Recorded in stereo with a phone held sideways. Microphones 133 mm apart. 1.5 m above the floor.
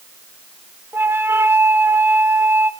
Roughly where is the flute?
Centre.